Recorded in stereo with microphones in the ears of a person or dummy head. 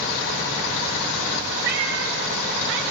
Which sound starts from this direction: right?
A cat meowing, at 1.6 s.